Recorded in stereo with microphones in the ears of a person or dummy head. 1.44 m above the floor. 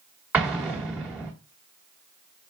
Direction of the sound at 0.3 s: 5° right (ahead or behind).